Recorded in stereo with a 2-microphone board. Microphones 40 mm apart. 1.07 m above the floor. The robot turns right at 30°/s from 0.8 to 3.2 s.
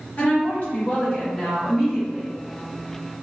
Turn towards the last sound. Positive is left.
turn(degrees=-145)